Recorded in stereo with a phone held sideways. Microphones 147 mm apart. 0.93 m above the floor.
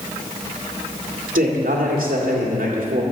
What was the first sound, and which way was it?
A man speaking, 70° right (ahead or behind).